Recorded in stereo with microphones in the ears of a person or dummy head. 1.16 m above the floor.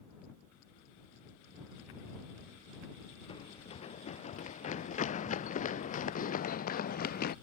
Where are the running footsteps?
35° left (ahead or behind); by 7.3 s 50° left (ahead or behind).